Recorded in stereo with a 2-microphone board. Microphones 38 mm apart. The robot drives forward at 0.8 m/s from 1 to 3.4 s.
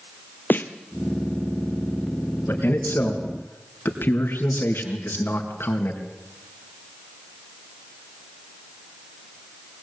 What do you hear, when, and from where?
0.5 s a snare drum: 60° left (ahead or behind), 1.4 m
2.5 s a man speaking: 70° left (ahead or behind), 4 m